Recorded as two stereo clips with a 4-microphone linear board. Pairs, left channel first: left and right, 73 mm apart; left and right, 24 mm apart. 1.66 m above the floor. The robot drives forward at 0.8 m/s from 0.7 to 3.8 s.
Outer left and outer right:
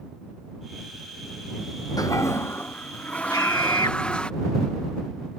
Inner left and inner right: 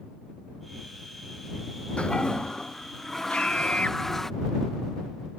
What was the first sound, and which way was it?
A toilet flushing, 55° left (ahead or behind).